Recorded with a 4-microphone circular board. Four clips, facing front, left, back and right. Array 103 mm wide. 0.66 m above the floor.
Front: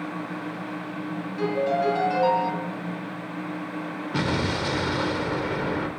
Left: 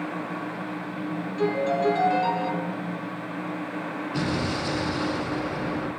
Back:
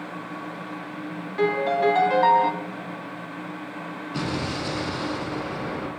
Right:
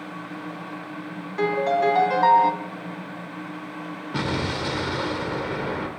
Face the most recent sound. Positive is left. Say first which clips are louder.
# right 1 dB, front 3 dB
turn(degrees=-40)